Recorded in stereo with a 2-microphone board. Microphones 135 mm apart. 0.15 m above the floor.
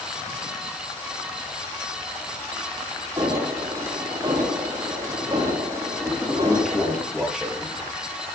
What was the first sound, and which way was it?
An alarm, 30° right (ahead or behind).